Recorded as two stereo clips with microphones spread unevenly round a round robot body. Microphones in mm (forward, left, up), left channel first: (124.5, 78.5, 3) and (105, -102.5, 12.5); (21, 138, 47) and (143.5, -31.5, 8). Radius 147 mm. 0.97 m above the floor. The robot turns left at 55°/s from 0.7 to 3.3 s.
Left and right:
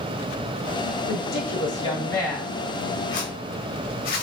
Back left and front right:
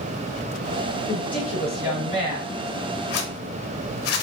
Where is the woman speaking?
70° left, 2.5 m; by 2.6 s 15° right, 2.5 m.